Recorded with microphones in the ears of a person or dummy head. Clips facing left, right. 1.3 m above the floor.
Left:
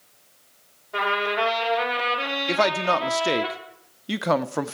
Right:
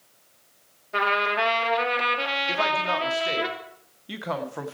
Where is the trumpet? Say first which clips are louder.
Left 1 dB; 25° right (ahead or behind), 2.5 m.